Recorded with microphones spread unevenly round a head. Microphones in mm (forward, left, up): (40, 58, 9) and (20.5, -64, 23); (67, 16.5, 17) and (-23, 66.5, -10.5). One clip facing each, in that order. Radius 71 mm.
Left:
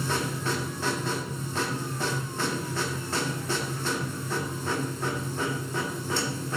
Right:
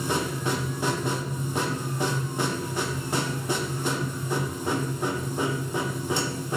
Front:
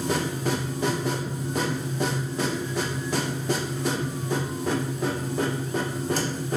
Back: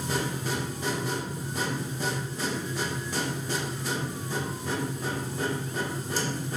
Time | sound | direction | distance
0.0 | a machine running | 25° right | 1.6 m